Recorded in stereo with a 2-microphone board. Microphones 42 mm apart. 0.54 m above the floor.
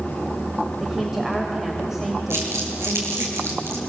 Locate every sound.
0.8 s a woman speaking: 10° right (ahead or behind), 3 m
2.3 s crumpling: 85° right, 7 m